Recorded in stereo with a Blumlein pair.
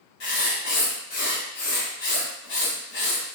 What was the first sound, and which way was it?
Writing, 50° left.